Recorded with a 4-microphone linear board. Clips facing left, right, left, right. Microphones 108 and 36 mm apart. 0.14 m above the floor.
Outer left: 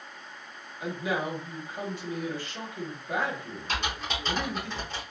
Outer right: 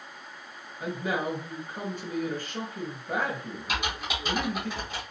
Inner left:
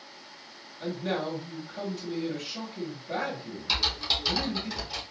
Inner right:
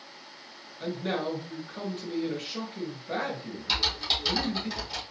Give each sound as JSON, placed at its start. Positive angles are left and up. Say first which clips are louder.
{"t": 0.8, "sound": "a man speaking", "louder": "outer right 1 dB, even", "side_deg": -45, "distance_m": 2.0}
{"t": 3.7, "sound": "typing on a keyboard", "louder": "even, even", "side_deg": -10, "distance_m": 2.5}